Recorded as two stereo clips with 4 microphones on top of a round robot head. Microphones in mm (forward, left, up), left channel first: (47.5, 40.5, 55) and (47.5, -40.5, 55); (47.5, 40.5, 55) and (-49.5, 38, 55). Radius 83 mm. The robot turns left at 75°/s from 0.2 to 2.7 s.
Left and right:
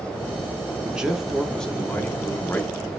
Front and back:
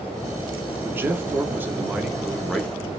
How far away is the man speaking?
About 0.9 m.